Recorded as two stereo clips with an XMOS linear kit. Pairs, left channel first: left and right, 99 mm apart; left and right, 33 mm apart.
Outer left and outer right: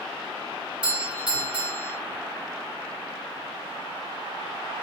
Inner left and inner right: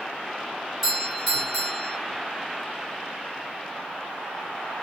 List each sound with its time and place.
0.8 s a doorbell: 10° right (ahead or behind), 1.8 m